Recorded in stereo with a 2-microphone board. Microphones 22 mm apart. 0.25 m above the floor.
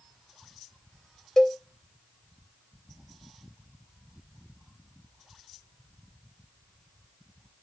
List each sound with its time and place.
1.4 s a cowbell: 25° left (ahead or behind), 0.5 m